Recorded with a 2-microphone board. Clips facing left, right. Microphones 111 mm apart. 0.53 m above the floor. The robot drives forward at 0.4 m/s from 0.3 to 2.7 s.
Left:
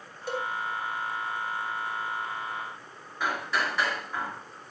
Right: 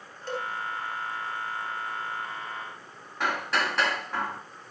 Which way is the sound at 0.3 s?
10° left (ahead or behind).